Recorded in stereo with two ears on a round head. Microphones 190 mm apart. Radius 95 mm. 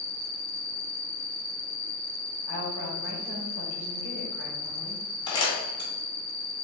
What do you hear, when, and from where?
0.0 s an insect: 10° right (ahead or behind), 1.1 m
2.5 s a woman speaking: 50° right (ahead or behind), 1.5 m
5.3 s crumpling: 20° left (ahead or behind), 1.6 m